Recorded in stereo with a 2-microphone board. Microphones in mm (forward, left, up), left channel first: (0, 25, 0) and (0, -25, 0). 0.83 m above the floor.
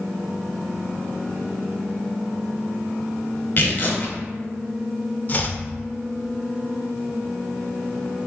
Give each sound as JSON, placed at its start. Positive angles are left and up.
{"t": 3.6, "sound": "tearing paper", "side_deg": 40, "distance_m": 0.8}
{"t": 5.3, "sound": "chopping", "side_deg": 35, "distance_m": 0.5}